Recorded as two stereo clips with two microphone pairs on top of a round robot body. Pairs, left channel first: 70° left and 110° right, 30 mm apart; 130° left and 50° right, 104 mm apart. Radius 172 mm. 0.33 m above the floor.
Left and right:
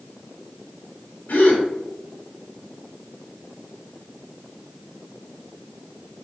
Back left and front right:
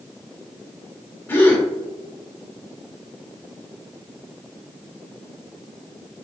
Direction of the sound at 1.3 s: 65° left.